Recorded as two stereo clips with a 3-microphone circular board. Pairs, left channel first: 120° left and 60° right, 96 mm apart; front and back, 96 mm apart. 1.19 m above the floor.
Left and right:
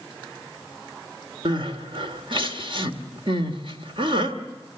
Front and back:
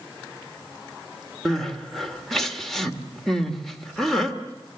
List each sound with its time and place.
1.4 s crying: 85° right, 1.9 m